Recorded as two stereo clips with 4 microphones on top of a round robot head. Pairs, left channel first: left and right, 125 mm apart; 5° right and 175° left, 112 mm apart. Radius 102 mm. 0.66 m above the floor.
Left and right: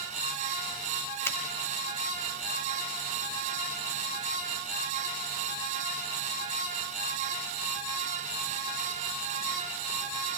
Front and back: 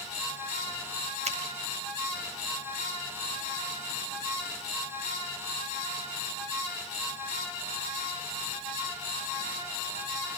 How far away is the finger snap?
About 4 m.